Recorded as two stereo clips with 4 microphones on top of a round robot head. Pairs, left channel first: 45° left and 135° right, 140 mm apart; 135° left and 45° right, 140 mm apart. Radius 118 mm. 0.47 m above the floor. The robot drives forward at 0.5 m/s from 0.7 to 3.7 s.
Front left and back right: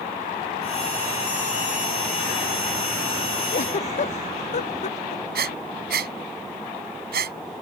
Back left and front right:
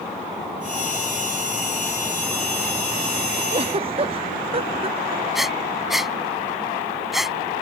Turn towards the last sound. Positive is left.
turn(degrees=-135)